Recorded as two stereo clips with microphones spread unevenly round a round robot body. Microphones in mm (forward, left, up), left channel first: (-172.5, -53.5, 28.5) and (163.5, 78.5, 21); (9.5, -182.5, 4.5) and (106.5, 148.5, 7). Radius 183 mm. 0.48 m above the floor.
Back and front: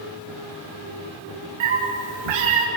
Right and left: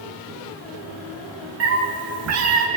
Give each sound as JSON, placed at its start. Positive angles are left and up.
{"t": 1.6, "sound": "a cat meowing", "azimuth_deg": 25, "distance_m": 5.5}